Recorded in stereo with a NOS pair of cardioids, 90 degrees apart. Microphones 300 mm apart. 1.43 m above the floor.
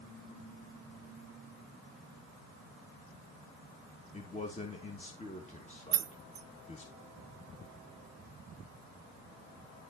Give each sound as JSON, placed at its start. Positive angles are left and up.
{"t": 4.1, "sound": "a man speaking", "azimuth_deg": 20, "distance_m": 2.5}
{"t": 5.9, "sound": "keys jangling", "azimuth_deg": -50, "distance_m": 0.8}